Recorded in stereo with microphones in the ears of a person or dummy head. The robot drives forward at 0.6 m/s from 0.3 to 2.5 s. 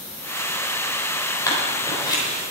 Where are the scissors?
20° left (ahead or behind), 4.5 m; by 2.2 s 25° left (ahead or behind), 4.5 m.